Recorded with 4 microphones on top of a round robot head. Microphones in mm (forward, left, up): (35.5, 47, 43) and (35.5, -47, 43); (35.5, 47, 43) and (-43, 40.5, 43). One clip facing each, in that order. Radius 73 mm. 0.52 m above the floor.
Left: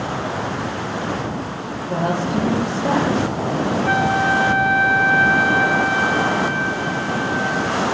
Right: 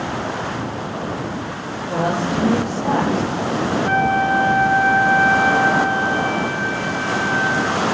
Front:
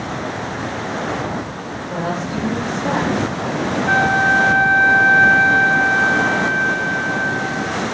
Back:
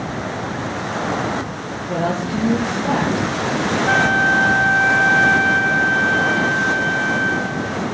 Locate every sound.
1.9 s a woman speaking: 160° right, 8.5 m
3.9 s a flute: 155° right, 8.5 m